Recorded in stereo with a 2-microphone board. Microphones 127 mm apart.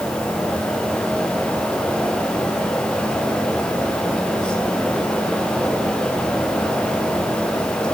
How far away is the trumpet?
No trumpet in this recording.